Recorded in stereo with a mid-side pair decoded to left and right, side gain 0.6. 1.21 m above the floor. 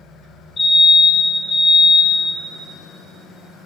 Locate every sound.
0.6 s a fire alarm: 35° left, 3 m